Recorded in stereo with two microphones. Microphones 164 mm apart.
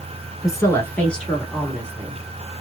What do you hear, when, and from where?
0.4 s a woman speaking: 20° left (ahead or behind), 1.2 m; by 2.2 s 15° right (ahead or behind), 1.5 m